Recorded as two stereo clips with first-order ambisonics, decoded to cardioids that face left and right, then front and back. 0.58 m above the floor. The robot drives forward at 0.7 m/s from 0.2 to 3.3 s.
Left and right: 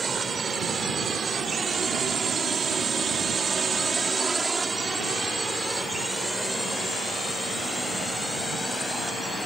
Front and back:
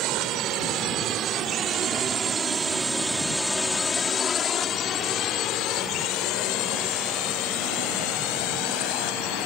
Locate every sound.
0.0 s a drone: 160° right; by 9.5 s straight ahead